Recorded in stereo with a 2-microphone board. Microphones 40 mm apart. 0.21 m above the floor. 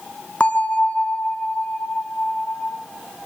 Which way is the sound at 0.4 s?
35° left (ahead or behind).